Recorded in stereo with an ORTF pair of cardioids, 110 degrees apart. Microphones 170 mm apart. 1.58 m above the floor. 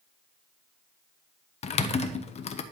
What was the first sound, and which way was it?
Typing on a keyboard, 35° left.